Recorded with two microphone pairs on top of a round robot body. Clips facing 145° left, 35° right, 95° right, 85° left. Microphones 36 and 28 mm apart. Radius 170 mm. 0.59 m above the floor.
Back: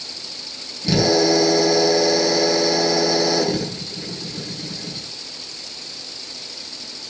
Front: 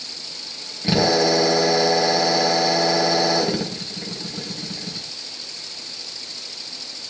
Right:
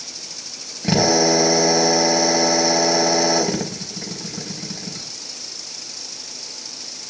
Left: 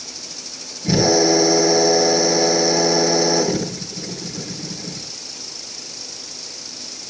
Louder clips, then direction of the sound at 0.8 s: Back 1 dB, left 1 dB; 95° right.